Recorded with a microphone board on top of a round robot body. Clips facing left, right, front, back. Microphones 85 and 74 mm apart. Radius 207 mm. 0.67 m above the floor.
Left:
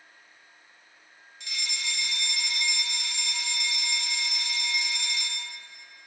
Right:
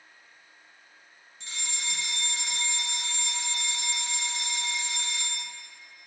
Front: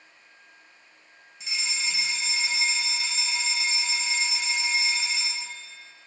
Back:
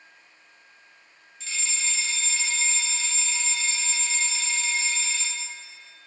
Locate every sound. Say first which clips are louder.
1.4 s a fire alarm: left 2 dB, front 1 dB; 65° right, 1.9 m